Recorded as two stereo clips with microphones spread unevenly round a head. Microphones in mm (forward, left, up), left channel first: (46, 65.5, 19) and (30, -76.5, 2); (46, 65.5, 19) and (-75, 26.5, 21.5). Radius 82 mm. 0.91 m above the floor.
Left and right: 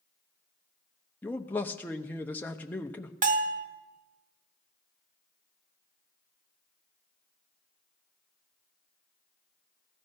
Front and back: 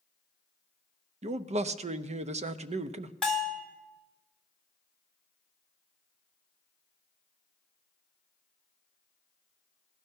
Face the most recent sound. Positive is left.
turn(degrees=-70)